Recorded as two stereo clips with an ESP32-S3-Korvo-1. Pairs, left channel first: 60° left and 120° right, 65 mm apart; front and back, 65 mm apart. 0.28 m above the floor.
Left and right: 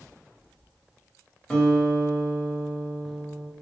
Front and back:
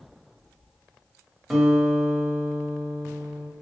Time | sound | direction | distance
1.5 | a guitar | 105° left | 0.9 m